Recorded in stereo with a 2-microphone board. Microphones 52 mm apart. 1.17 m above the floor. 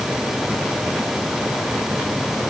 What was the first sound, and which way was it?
Only background noise.